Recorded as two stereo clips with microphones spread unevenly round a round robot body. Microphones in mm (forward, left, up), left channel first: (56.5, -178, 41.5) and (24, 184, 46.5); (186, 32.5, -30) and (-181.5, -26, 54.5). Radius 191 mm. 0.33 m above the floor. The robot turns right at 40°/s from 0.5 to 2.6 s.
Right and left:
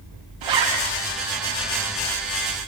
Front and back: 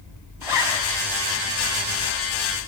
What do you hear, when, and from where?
0.4 s a zipper: 100° left, 2.5 m; by 0.8 s 115° left, 2.5 m